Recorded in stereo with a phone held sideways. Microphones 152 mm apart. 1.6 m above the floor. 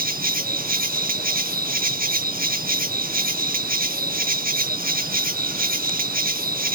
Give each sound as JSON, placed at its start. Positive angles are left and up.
{"t": 0.0, "sound": "an insect", "side_deg": -70}